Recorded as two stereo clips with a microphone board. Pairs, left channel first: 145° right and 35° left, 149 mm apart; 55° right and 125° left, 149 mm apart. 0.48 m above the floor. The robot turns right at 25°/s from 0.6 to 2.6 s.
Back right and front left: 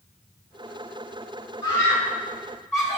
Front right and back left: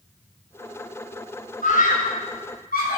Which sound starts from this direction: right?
A scream, at 1.6 s.